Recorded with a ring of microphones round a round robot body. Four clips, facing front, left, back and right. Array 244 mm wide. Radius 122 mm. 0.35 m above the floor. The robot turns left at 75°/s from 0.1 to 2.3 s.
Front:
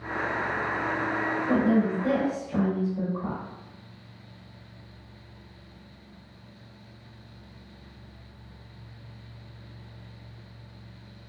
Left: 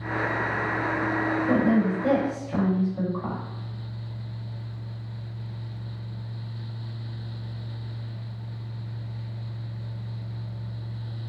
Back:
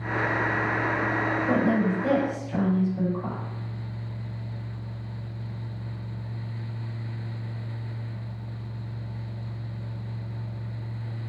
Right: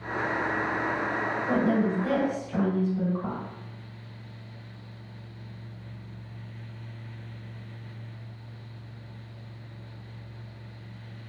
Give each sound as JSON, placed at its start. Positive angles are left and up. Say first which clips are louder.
{"t": 1.5, "sound": "a woman speaking", "louder": "left 2 dB, front 1 dB", "azimuth_deg": 170, "distance_m": 2.0}